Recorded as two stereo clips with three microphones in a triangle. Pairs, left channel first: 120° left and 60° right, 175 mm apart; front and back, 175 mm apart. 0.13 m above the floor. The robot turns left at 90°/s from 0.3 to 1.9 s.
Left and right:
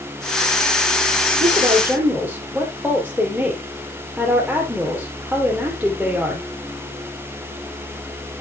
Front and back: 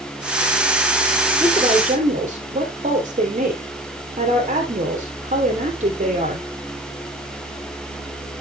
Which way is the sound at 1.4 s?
95° right.